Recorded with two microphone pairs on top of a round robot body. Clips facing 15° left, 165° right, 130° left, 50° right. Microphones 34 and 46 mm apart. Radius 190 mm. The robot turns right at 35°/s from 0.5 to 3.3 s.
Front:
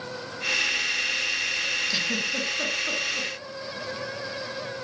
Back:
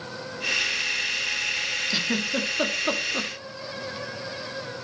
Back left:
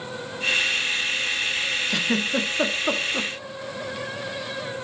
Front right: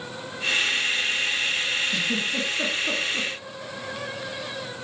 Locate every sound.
1.9 s a giggle: 115° left, 2.5 m; by 3.3 s 165° left, 2.5 m